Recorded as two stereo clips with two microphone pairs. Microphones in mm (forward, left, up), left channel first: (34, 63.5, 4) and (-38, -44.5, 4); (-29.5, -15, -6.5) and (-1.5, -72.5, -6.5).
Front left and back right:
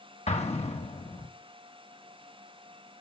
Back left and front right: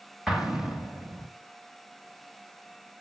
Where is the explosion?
20° left, 1.8 m.